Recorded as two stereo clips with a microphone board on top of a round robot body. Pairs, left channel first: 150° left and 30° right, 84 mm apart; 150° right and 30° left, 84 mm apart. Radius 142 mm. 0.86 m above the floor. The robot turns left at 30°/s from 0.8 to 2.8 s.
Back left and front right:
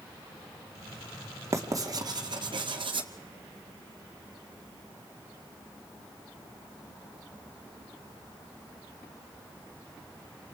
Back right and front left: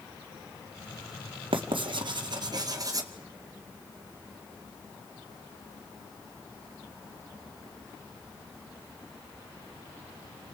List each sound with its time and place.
1.5 s writing: 20° left, 2 m; by 3.1 s 15° right, 2 m